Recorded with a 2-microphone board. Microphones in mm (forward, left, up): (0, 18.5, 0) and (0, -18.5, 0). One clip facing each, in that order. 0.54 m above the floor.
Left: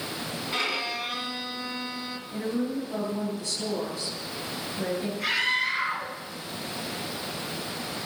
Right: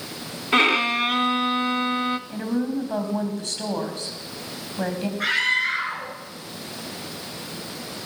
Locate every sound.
0.5 s a violin: 60° right (ahead or behind), 0.9 m
2.3 s a woman speaking: 55° right (ahead or behind), 3.5 m
5.2 s a scream: 60° right (ahead or behind), 6.5 m